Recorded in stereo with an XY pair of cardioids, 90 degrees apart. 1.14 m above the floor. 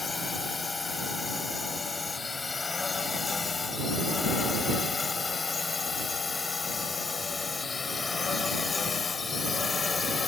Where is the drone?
35° left; by 10.3 s 45° left.